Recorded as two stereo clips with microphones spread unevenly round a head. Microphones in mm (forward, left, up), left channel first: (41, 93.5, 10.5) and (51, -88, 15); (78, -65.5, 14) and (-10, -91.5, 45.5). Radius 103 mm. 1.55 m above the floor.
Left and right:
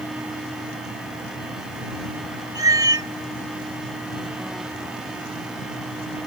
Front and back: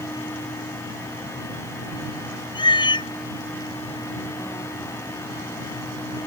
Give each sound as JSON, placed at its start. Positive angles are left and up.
{"t": 2.5, "sound": "a cat meowing", "azimuth_deg": -20}